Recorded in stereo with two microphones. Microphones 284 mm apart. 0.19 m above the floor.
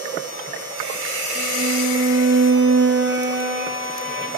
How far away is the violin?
About 0.8 m.